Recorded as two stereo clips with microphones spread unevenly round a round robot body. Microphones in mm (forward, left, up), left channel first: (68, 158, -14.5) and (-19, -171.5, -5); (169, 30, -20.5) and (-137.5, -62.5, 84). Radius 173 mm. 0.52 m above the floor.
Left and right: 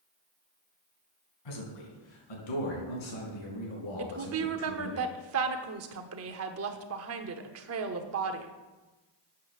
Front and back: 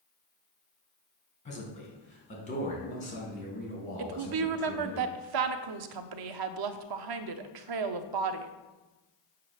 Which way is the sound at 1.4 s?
85° left.